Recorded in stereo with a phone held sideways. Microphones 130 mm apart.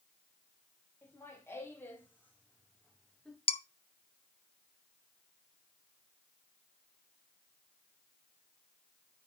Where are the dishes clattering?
45° left (ahead or behind), 0.7 m.